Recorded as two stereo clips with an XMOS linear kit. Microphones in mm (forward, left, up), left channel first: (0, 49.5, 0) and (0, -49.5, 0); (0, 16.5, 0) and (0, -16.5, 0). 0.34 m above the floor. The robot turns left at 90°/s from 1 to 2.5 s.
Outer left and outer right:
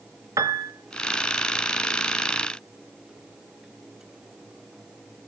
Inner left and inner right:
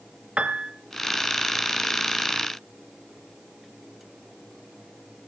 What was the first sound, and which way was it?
A piano, 35° right (ahead or behind).